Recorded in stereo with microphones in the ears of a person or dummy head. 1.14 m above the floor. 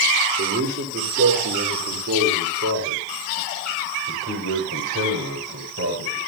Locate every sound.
0.4 s a man speaking: 55° right (ahead or behind), 4 m; by 6.2 s 70° right (ahead or behind), 6.5 m